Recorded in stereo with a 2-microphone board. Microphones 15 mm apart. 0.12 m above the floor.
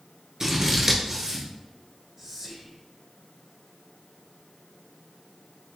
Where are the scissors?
30° right (ahead or behind), 1.2 m.